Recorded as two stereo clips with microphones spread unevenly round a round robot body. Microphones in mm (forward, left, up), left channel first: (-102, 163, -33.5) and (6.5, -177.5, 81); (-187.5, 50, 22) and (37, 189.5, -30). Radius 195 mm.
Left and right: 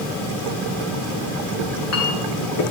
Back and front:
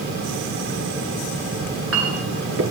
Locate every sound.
1.6 s a clink: 65° left, 2.5 m